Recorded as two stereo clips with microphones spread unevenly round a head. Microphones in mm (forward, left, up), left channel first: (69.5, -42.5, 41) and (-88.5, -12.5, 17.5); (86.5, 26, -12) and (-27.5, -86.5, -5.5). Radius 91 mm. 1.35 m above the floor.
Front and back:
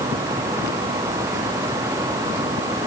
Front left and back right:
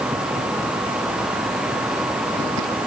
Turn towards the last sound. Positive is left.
No sound to turn to.